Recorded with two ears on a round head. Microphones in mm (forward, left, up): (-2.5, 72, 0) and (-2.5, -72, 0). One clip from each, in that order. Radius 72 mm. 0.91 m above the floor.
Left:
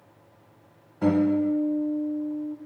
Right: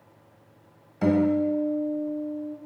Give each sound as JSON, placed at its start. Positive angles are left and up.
{"t": 1.0, "sound": "a guitar", "side_deg": -50, "distance_m": 1.6}